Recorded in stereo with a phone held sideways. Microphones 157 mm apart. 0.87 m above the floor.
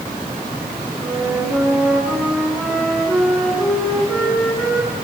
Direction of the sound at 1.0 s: Centre (ahead or behind).